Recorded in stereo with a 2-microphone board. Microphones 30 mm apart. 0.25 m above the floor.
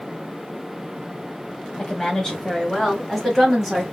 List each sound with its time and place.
1.8 s a woman speaking: 25° left (ahead or behind), 1.4 m; by 3.8 s 5° right (ahead or behind), 1.6 m